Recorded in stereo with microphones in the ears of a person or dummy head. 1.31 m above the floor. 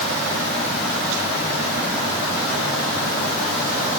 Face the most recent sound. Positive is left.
No sound to turn to.